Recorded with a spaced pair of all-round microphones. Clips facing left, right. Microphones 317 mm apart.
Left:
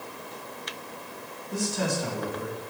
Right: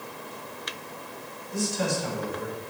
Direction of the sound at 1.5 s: 70° left (ahead or behind).